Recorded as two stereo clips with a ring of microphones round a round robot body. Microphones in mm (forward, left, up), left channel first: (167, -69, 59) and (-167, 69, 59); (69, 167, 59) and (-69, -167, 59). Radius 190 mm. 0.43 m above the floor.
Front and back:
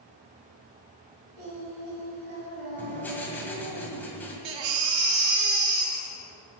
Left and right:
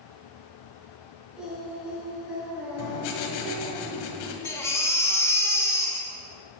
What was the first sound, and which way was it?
Singing, 160° left.